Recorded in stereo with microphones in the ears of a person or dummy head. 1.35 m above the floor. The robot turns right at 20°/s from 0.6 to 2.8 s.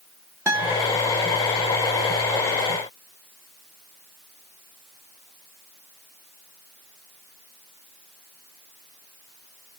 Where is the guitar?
15° right (ahead or behind), 0.6 m; by 0.9 s 10° right (ahead or behind), 0.6 m.